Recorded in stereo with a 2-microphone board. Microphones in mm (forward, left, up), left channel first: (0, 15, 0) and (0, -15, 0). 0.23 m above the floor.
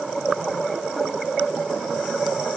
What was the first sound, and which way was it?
Only background noise.